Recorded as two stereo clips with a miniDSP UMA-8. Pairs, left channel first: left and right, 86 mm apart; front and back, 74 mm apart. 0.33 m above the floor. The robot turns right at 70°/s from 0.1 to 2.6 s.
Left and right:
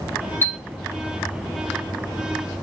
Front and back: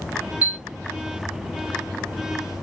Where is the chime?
125° left, 1.2 m; by 0.6 s 135° left, 1.2 m.